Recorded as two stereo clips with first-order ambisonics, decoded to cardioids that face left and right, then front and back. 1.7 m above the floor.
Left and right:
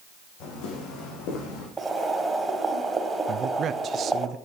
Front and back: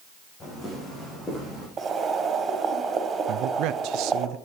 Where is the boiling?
155° right, 1.6 m.